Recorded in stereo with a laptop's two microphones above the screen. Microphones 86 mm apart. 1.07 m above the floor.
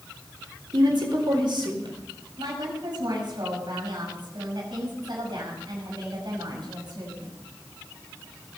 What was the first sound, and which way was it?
A woman speaking, 65° right (ahead or behind).